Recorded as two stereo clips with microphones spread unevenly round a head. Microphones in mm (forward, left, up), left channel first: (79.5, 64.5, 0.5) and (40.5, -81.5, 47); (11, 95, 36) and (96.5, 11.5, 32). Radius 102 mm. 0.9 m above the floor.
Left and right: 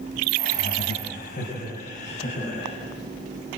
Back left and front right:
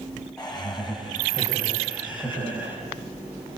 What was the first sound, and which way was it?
Laughter, 55° left.